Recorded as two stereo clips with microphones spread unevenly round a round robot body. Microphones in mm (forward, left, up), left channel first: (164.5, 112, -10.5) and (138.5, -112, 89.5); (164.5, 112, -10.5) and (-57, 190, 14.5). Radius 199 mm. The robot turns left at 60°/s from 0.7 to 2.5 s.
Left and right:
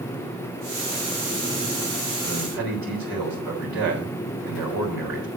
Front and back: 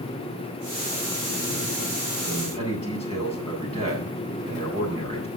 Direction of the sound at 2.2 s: 110° right.